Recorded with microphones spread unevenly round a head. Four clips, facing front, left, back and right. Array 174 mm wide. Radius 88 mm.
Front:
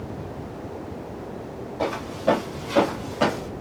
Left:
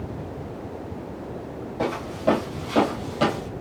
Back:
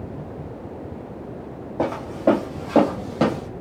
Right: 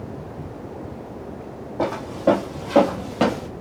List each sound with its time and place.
1.8 s footsteps: 155° right, 2.5 m; by 3.5 s 125° right, 1.8 m